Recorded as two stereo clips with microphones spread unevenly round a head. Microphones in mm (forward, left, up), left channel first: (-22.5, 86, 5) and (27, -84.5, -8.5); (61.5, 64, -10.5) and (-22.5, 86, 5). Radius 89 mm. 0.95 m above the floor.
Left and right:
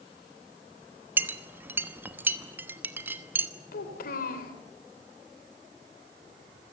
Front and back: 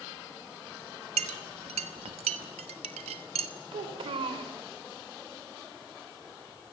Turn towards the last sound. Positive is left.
turn(degrees=150)